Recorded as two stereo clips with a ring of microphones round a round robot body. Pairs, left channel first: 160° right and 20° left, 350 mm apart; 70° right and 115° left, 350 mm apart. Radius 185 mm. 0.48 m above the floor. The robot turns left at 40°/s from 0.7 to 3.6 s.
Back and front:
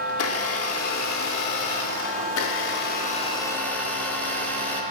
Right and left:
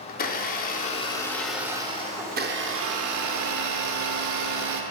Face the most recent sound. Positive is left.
turn(degrees=120)